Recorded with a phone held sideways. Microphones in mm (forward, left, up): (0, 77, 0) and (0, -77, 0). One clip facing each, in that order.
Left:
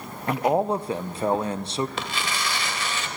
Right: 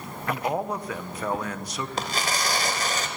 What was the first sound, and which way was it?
A man speaking, 30° left (ahead or behind).